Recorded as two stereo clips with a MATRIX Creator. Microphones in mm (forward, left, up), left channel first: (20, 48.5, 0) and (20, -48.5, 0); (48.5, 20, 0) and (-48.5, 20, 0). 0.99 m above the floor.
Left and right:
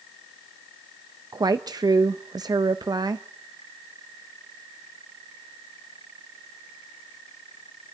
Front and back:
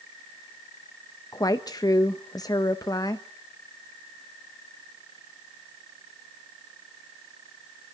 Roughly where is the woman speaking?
Ahead right.